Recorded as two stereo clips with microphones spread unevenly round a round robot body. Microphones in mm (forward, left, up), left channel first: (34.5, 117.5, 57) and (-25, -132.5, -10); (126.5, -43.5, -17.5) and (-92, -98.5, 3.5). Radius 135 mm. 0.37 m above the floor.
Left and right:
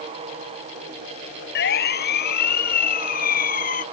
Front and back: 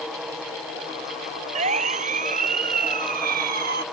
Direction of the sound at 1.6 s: 130° left.